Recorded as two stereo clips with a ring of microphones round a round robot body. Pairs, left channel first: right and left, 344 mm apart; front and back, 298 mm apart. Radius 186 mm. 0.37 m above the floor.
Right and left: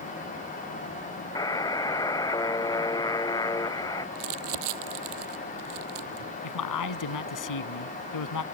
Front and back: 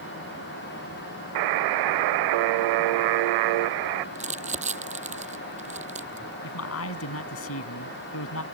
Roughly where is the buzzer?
Behind.